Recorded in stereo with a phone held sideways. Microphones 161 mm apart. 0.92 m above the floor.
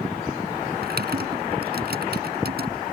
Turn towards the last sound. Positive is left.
turn(degrees=-75)  # may be behind; listen again after turning